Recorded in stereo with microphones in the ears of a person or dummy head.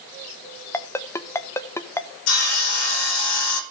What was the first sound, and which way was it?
A ringtone, 15° left (ahead or behind).